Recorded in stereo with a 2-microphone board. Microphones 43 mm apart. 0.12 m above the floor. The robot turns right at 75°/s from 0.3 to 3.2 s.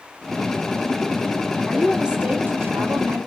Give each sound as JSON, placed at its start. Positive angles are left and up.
{"t": 1.7, "sound": "a woman speaking", "azimuth_deg": 170, "distance_m": 3.0}